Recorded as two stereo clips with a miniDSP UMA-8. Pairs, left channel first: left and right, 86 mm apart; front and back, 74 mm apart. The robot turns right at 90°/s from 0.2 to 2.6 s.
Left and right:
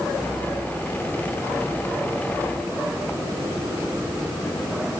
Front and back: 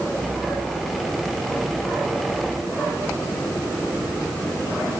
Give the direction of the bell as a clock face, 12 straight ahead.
No bell in this recording.